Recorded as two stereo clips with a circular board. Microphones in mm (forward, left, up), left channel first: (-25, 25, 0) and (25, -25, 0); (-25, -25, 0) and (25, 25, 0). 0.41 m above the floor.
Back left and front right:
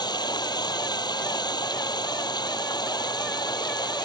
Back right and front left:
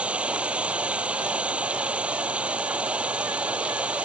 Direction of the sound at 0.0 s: 120° left.